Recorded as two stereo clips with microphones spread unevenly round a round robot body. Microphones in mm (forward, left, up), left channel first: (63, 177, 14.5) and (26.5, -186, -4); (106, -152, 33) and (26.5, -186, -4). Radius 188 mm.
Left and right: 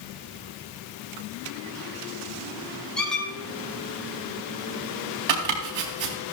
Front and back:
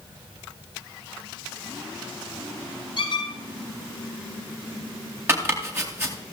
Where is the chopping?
95° right, 4 m.